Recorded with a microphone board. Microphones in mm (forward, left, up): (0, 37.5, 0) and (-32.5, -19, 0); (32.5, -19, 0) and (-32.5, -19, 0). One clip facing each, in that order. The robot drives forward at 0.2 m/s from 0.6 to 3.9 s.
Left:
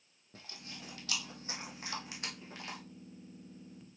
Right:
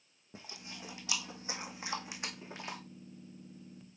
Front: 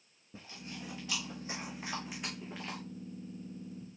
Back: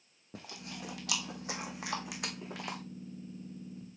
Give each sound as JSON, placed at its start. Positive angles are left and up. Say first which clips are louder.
{"t": 0.3, "sound": "chewing", "louder": "right 2 dB, back 1 dB", "azimuth_deg": 170, "distance_m": 1.5}